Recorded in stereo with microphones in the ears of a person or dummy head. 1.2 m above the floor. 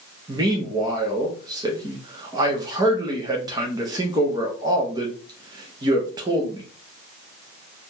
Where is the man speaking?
15° right (ahead or behind), 0.6 m.